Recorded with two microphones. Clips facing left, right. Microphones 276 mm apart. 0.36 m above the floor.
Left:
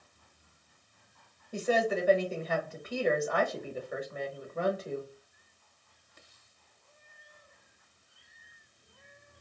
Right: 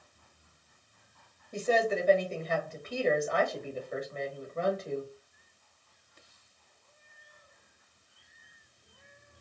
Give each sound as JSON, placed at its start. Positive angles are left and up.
{"t": 1.5, "sound": "a woman speaking", "side_deg": 10, "distance_m": 1.2}